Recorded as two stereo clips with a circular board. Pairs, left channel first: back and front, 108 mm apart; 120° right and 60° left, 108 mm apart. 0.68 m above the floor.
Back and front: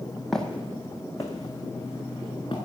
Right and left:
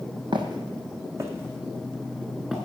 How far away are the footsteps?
About 1.3 m.